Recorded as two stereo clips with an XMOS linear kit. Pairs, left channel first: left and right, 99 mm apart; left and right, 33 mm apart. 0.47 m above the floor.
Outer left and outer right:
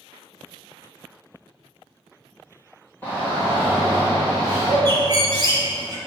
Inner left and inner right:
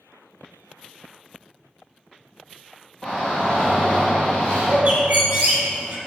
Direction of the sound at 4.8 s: 45° right (ahead or behind).